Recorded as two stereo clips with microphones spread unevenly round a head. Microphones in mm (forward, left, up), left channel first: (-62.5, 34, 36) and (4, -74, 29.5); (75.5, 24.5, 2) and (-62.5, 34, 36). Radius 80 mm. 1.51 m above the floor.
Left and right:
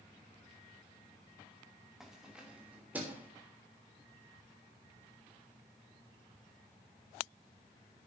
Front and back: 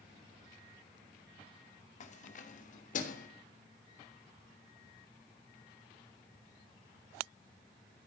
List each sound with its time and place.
2.0 s keys jangling: 30° left, 2.5 m; by 3.3 s 20° left, 3.5 m